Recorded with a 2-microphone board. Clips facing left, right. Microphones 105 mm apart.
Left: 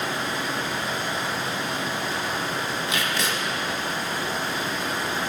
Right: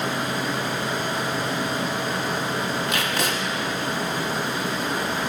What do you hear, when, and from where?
0.0 s running water: 60° right (ahead or behind), 0.9 m
2.9 s tape being pulled: 55° right (ahead or behind), 0.8 m